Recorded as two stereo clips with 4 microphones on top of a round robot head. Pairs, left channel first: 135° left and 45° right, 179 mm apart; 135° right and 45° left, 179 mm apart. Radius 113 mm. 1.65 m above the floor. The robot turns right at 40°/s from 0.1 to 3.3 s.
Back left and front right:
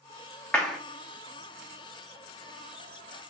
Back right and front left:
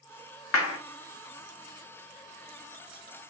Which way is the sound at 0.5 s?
140° right.